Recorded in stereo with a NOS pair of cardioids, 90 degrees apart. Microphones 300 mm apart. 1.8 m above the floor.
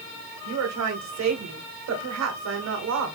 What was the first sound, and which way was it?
A woman speaking, 60° right.